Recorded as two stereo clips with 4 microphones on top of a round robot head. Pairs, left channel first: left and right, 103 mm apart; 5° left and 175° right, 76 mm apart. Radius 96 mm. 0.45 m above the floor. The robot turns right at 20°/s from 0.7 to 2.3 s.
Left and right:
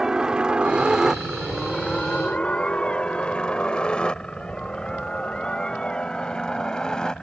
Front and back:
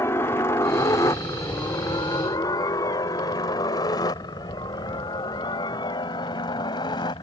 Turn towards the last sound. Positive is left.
turn(degrees=10)